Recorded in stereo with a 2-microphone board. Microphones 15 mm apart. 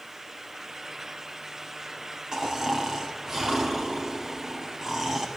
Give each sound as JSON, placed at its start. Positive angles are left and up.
{"t": 2.3, "sound": "snoring", "side_deg": -30, "distance_m": 1.4}